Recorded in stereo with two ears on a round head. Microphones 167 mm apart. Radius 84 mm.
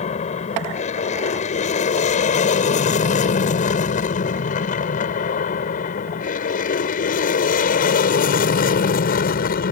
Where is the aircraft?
40° left (ahead or behind); by 9.7 s 50° left (ahead or behind).